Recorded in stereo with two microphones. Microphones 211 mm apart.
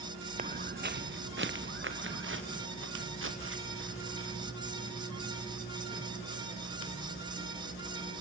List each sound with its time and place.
0.4 s footsteps: 40° right (ahead or behind), 0.8 m; by 5.4 s 85° right, 3.5 m